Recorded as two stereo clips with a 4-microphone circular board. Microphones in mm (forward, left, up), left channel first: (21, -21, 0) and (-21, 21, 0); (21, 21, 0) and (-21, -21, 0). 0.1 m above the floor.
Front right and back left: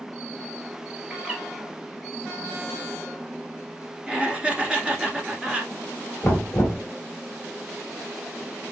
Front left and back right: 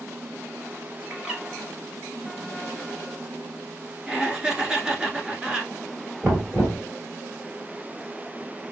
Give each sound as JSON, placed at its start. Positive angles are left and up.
{"t": 1.1, "sound": "a bird", "azimuth_deg": 155, "distance_m": 1.8}
{"t": 4.1, "sound": "laughter", "azimuth_deg": 170, "distance_m": 1.3}
{"t": 6.2, "sound": "knocking", "azimuth_deg": -90, "distance_m": 1.8}